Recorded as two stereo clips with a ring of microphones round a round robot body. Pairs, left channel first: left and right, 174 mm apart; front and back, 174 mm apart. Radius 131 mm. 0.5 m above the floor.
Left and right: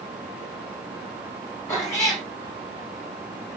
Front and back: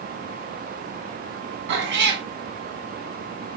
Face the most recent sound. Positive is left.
turn(degrees=170)